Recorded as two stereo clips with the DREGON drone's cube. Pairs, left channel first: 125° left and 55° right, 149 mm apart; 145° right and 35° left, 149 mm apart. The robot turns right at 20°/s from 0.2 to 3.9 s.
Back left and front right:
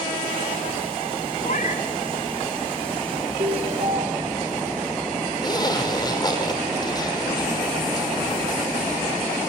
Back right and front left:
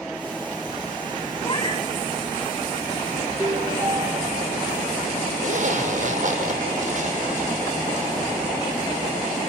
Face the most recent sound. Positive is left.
turn(degrees=65)